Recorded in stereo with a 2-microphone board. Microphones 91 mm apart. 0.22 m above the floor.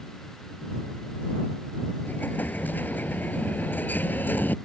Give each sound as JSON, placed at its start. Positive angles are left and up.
{"t": 2.0, "sound": "an explosion", "side_deg": 20}